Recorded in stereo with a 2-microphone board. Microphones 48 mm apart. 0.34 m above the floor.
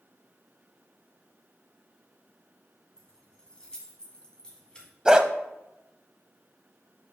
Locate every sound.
3.0 s keys jangling: 20° left (ahead or behind), 1.9 m
5.0 s a dog barking: 15° right (ahead or behind), 0.5 m